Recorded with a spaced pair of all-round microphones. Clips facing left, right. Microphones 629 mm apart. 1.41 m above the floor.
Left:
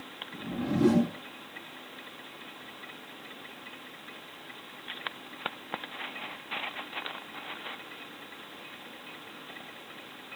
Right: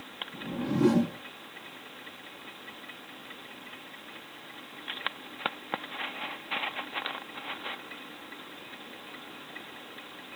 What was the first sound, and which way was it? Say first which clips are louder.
A whoosh: even; 10° left (ahead or behind).